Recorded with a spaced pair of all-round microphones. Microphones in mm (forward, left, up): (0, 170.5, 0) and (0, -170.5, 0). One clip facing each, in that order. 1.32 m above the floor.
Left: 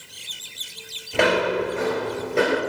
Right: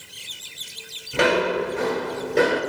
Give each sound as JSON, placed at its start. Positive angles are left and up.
{"t": 1.1, "sound": "footsteps", "side_deg": -15, "distance_m": 1.3}